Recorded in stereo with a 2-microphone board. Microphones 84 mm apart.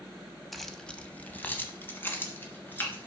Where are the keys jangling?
Centre (ahead or behind), 0.8 m; by 3.1 s 25° left (ahead or behind), 2.5 m.